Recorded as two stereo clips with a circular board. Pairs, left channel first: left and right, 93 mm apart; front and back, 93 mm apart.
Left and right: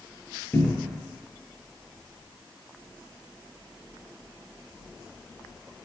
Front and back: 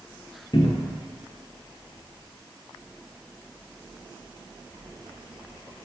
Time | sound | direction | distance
0.5 | a cupboard door | 25° left | 0.6 m